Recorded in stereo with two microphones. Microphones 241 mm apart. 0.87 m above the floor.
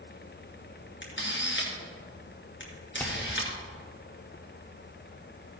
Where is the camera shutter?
50° left (ahead or behind), 2.5 m.